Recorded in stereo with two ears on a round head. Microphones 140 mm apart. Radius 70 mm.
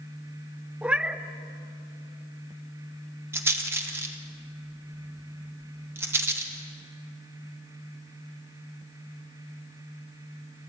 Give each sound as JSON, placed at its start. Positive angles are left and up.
{"t": 0.8, "sound": "a cat meowing", "side_deg": -5, "distance_m": 0.7}
{"t": 3.3, "sound": "a rattle", "side_deg": -15, "distance_m": 1.8}